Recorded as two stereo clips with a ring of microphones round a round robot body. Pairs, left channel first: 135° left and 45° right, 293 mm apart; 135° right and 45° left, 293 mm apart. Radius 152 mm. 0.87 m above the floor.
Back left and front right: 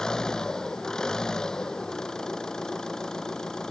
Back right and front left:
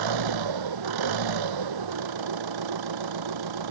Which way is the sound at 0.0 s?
45° left.